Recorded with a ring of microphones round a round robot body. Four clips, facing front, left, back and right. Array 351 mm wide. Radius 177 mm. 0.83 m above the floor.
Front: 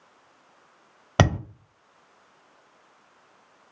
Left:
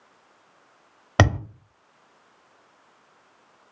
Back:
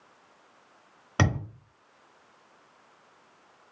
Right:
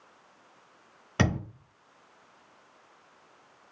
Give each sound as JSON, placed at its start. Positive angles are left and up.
{"t": 1.2, "sound": "a thud", "azimuth_deg": 55, "distance_m": 0.7}